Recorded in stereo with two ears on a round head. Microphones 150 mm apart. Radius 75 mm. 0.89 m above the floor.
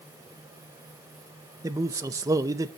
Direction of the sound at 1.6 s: 20° right (ahead or behind).